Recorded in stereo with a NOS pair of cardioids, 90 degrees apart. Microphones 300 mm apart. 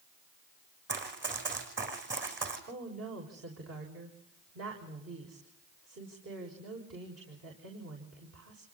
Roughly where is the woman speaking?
Ahead right.